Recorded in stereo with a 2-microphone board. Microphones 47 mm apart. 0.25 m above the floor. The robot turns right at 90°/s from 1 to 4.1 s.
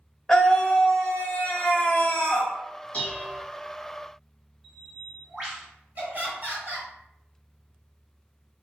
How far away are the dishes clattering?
About 1.1 m.